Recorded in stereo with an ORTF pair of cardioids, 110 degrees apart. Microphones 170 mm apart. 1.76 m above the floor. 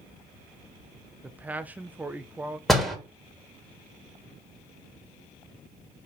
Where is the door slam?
Straight ahead, 2.5 m.